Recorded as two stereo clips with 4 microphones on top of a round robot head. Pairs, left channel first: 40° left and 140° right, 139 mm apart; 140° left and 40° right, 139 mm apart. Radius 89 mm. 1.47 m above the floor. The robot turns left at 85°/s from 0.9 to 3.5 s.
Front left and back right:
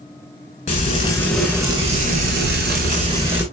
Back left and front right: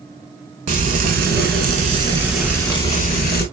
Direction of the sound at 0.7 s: 5° right.